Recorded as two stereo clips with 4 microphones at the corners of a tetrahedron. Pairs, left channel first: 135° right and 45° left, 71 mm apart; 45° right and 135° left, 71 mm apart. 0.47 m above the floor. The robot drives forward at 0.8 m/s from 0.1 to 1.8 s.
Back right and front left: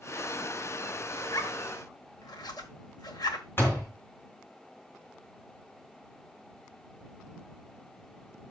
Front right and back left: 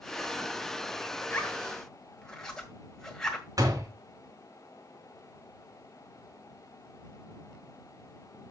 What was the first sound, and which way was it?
A zipper, 110° right.